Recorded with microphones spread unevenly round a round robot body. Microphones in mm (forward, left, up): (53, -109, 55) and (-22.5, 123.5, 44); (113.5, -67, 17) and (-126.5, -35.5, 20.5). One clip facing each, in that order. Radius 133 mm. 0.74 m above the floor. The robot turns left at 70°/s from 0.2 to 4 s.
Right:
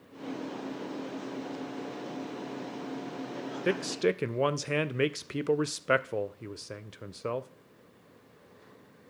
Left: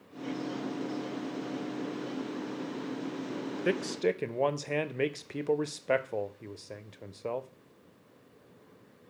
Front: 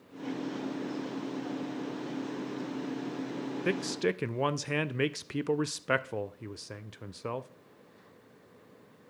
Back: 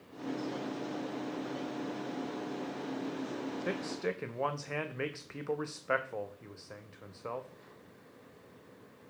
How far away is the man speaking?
About 0.5 m.